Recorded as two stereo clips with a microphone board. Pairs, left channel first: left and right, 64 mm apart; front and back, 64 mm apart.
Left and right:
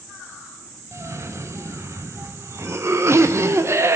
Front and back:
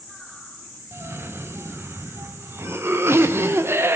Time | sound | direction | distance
0.9 | a cough | 130° right | 0.6 m